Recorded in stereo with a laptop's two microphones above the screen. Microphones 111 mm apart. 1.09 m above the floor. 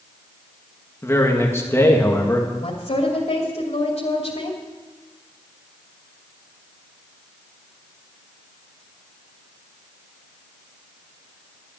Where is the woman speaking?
80° left, 2.5 m.